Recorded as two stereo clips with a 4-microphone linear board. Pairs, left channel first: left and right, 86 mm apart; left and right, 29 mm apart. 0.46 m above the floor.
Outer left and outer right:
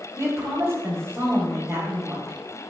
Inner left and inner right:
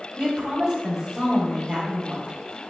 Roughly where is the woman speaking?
Right.